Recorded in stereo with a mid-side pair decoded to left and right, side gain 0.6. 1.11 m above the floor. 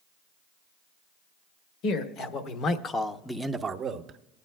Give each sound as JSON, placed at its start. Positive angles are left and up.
{"t": 1.8, "sound": "a man speaking", "azimuth_deg": 65, "distance_m": 1.5}